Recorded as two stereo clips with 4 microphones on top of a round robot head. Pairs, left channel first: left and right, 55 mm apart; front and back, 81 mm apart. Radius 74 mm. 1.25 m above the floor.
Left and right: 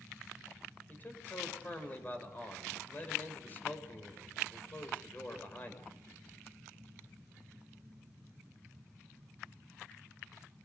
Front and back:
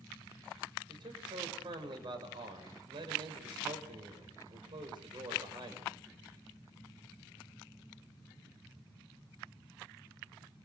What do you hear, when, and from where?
0.9 s a man speaking: 150° left, 6 m